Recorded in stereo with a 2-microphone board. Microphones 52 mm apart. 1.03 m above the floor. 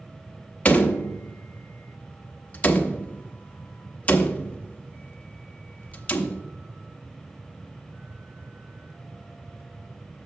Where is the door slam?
25° left (ahead or behind), 0.8 m.